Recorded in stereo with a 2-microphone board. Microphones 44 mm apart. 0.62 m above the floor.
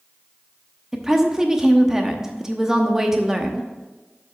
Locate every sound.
0.9 s a woman speaking: 10° right (ahead or behind), 0.9 m